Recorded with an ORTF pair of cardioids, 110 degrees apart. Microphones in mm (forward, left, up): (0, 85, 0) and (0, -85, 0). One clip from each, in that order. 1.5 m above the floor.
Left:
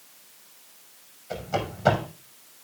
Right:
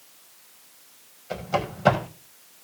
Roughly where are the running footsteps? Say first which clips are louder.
Right 2 dB; ahead.